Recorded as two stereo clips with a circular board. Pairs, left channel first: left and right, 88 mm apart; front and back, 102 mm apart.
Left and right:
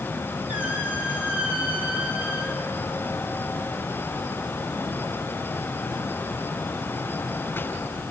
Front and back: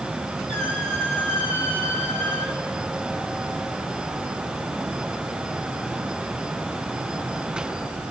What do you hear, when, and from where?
0.5 s a squeak: 165° right, 4 m